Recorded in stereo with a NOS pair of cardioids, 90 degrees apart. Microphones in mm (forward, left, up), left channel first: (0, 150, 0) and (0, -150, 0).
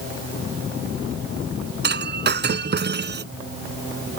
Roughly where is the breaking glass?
Ahead right.